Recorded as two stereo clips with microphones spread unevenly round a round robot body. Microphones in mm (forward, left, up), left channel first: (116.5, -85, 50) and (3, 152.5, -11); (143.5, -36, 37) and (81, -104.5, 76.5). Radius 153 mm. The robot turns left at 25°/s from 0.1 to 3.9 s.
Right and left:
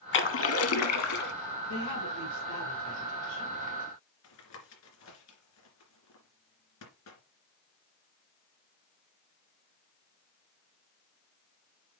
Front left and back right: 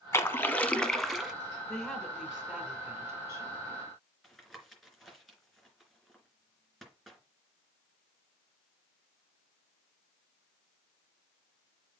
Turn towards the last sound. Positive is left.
turn(degrees=-40)